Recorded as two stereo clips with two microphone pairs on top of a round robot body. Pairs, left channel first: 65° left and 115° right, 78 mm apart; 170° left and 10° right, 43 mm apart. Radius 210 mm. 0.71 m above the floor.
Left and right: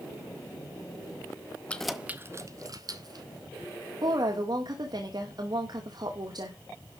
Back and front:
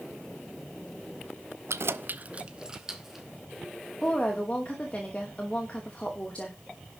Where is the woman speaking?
125° right, 2.5 m.